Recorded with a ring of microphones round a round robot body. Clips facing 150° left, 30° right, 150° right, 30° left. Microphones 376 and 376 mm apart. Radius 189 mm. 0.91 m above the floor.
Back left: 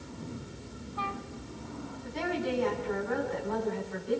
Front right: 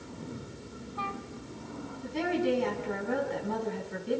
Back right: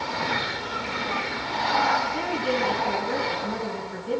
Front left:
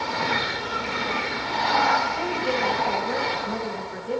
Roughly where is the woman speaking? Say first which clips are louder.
Front right 4 dB, even; right.